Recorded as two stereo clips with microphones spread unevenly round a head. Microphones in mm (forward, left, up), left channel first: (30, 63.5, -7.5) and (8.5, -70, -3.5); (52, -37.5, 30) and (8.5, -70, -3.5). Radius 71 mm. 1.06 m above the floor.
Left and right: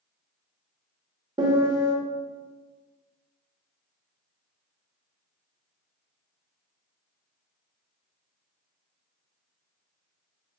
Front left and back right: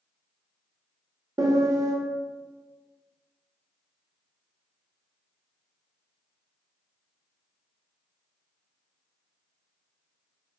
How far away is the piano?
About 0.7 m.